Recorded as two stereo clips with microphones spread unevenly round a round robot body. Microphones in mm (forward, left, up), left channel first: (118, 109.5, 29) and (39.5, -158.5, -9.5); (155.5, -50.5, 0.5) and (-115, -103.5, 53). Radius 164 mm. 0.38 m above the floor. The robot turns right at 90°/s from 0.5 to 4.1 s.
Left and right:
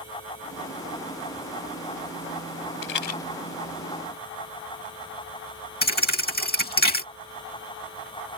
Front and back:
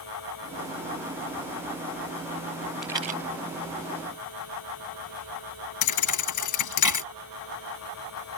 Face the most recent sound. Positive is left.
turn(degrees=15)